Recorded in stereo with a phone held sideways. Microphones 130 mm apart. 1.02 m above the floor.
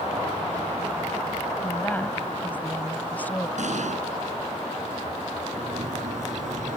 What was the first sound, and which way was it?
A woman speaking, 10° left (ahead or behind).